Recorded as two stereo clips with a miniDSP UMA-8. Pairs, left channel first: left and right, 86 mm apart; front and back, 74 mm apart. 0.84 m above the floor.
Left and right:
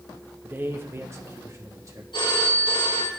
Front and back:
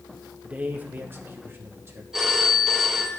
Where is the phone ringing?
95° left, 2.5 m.